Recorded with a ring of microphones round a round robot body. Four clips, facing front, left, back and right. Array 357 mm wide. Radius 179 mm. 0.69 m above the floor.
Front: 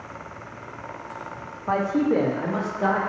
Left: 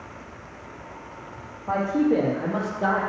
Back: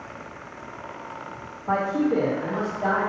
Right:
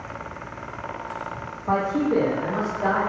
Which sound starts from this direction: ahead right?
A man speaking, at 1.7 s.